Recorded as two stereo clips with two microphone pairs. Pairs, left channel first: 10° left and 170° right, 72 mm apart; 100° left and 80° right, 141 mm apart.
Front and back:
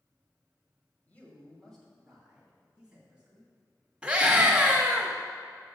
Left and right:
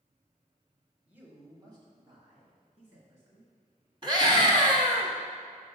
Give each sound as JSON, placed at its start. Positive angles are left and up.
{"t": 1.1, "sound": "a man speaking", "azimuth_deg": -10, "distance_m": 1.3}
{"t": 4.0, "sound": "a scream", "azimuth_deg": -105, "distance_m": 1.2}